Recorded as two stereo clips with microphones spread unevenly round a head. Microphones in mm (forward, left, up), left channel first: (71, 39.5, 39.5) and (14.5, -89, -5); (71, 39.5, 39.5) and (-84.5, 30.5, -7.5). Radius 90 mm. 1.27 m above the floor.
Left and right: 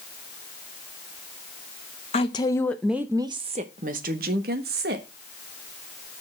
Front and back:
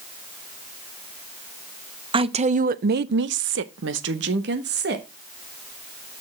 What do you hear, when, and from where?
2.1 s a woman speaking: 125° left, 0.8 m; by 5.0 s 140° right, 1.5 m